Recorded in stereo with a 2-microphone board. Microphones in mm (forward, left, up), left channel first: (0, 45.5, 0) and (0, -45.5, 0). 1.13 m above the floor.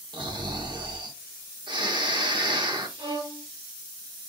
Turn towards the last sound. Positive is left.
turn(degrees=-70)  # may be behind; listen again after turning